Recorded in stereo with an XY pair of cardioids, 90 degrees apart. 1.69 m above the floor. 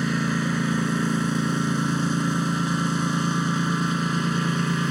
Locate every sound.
0.0 s a lawn mower: 10° right